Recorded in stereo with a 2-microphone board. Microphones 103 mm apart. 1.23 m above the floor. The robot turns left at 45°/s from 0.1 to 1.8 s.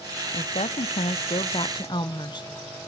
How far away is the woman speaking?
About 0.6 m.